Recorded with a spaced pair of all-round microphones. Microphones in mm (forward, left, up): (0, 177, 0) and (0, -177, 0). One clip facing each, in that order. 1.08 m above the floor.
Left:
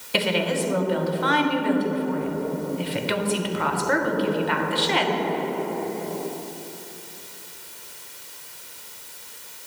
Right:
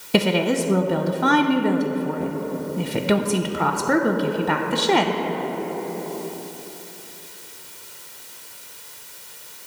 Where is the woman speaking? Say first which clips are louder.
Right 5 dB; 60° right (ahead or behind), 0.6 m.